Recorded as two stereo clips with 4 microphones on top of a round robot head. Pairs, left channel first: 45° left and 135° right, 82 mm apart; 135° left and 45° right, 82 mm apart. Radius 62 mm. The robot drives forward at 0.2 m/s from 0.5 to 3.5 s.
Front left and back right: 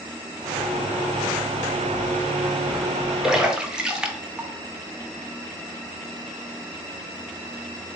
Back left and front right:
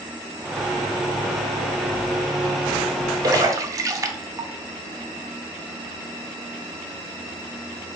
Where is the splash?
55° right, 0.6 m; by 4.5 s 60° right, 0.6 m.